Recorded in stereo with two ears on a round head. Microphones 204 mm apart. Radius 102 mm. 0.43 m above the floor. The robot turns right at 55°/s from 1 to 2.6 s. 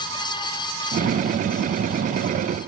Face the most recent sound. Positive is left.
No sound to turn to.